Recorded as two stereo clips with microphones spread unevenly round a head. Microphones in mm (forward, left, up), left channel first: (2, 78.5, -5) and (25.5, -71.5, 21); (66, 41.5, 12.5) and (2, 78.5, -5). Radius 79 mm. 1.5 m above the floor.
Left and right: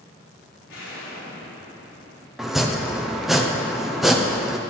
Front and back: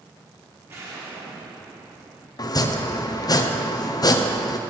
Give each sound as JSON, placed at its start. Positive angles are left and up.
{"t": 0.7, "sound": "an explosion", "azimuth_deg": 95, "distance_m": 3.0}
{"t": 2.4, "sound": "chopping", "azimuth_deg": 10, "distance_m": 0.8}